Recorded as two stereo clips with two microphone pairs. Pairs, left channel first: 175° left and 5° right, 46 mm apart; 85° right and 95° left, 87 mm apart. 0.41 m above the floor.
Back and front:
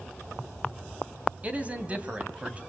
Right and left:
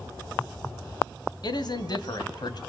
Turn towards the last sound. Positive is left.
turn(degrees=-60)